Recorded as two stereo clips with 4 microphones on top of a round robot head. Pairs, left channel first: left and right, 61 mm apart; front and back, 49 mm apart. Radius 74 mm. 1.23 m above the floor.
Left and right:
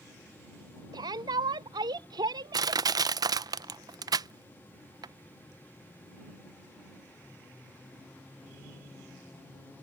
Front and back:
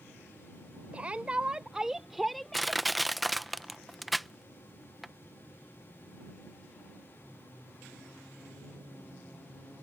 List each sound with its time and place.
0.9 s a shout: 105° right; by 2.8 s 80° right
2.5 s crushing: 90° right